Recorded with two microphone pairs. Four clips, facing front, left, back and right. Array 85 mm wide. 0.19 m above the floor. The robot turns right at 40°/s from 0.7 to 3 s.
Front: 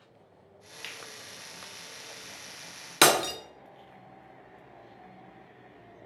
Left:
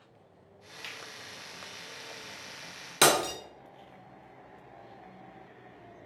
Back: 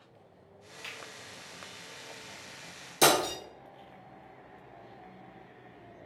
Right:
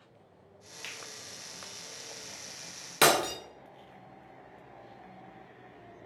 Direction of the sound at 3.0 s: 15° left.